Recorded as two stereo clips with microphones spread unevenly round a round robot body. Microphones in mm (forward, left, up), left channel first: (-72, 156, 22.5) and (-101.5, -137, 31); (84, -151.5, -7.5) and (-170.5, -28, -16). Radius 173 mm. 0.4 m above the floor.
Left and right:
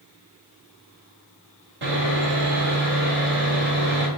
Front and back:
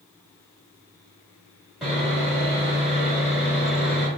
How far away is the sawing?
About 1.2 m.